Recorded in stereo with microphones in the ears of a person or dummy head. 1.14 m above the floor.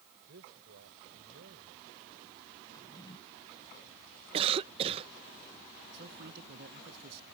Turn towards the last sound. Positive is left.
turn(degrees=-55)  # may be behind; listen again after turning